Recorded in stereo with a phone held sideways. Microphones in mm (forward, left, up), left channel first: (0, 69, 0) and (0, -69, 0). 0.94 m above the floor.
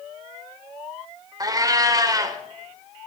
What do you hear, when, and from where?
1.4 s a cat meowing: 30° right (ahead or behind), 1.5 m